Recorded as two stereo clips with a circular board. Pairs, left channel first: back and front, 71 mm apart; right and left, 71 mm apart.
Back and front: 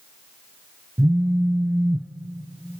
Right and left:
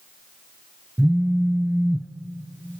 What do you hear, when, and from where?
1.0 s a phone buzzing: 35° left, 0.9 m